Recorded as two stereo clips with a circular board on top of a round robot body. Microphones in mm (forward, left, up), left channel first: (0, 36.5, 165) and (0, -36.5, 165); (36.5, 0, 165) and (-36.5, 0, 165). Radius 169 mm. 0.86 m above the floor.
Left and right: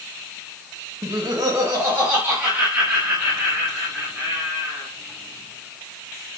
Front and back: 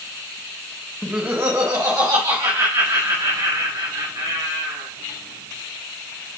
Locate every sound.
1.0 s laughter: 100° right, 1.2 m; by 4.9 s 170° right, 6 m